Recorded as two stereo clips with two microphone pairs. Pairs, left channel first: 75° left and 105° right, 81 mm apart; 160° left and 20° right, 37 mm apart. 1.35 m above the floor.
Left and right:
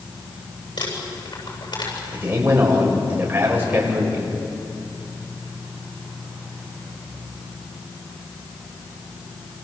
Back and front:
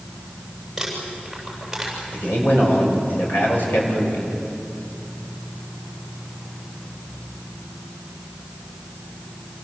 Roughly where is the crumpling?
Ahead left.